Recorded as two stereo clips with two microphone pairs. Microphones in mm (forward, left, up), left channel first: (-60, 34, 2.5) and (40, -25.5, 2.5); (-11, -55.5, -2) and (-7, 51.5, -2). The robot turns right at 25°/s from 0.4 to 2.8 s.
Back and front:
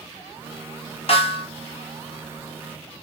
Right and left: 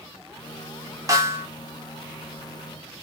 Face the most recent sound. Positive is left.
turn(degrees=-175)